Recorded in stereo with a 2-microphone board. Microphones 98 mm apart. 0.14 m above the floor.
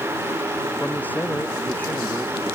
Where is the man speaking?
15° left (ahead or behind).